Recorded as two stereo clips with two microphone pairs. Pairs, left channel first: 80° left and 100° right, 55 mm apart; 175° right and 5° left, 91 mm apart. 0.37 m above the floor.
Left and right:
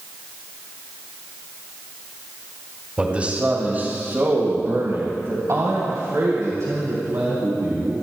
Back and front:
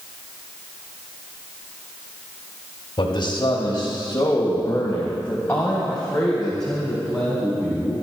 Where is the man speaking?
165° right, 2.5 m; by 7.9 s 80° right, 4.5 m.